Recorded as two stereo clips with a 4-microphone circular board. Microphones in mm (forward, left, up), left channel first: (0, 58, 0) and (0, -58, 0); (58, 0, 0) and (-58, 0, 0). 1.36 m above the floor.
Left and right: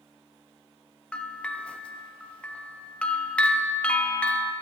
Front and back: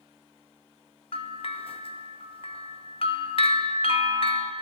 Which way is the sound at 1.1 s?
10° left.